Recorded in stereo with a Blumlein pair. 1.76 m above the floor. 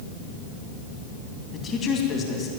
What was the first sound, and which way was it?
A man speaking, 25° left.